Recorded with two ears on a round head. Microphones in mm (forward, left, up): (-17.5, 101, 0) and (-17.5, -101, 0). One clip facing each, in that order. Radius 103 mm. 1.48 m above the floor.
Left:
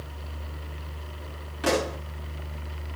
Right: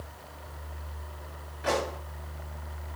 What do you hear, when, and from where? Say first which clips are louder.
1.6 s a pop: left 4 dB; 75° left (ahead or behind), 5.5 m